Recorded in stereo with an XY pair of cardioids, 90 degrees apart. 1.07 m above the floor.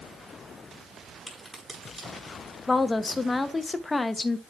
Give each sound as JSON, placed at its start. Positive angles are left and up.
{"t": 1.3, "sound": "a crack", "azimuth_deg": -15, "distance_m": 5.0}
{"t": 2.7, "sound": "a woman speaking", "azimuth_deg": 30, "distance_m": 0.9}